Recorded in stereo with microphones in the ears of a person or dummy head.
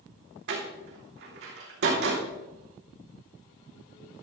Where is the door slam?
70° right (ahead or behind), 3 m.